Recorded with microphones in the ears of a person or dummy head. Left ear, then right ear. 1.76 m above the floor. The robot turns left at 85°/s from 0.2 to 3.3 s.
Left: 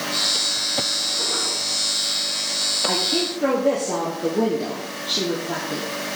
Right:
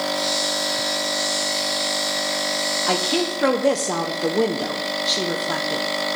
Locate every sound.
2.9 s a woman speaking: 30° right, 0.9 m; by 5.8 s 70° right, 0.9 m